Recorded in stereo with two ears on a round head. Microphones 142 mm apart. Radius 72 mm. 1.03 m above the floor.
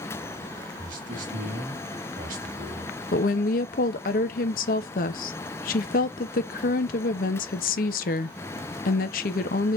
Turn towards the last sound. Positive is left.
turn(degrees=55)  # may be behind; listen again after turning